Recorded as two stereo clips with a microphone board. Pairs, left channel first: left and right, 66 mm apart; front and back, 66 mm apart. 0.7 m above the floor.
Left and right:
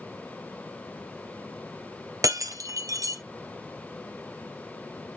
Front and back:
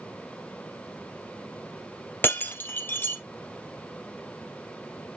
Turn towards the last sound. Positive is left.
turn(degrees=-60)